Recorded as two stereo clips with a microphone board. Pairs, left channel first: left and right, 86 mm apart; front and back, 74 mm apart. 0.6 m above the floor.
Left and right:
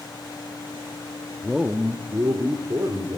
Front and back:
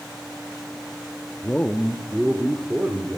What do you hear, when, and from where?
1.4 s a man speaking: 5° left, 0.7 m; by 3.2 s 120° right, 1.9 m